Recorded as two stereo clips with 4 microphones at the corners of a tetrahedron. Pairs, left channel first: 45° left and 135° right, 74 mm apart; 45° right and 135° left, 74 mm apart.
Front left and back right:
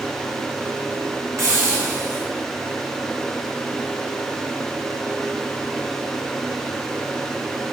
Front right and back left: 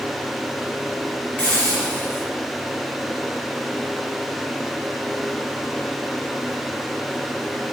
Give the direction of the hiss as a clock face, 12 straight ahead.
4 o'clock.